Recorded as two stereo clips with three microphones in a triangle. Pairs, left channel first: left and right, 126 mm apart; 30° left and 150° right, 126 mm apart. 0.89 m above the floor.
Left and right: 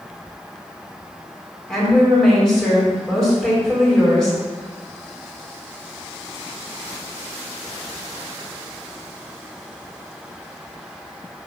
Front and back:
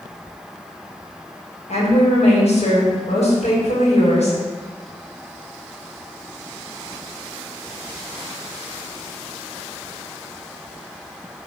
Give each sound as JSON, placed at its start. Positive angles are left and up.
{"t": 1.7, "sound": "a woman speaking", "azimuth_deg": 5, "distance_m": 4.5}